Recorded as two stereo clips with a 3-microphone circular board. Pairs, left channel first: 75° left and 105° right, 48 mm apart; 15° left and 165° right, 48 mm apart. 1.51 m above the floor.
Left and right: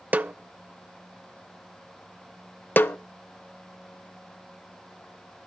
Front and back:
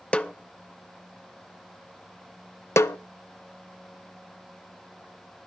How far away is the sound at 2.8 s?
About 0.5 m.